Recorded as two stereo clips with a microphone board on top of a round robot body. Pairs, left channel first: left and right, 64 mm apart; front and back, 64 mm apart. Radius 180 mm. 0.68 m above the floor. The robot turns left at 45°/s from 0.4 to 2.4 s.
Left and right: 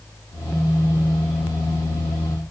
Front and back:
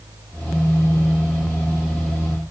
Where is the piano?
I don't hear a piano.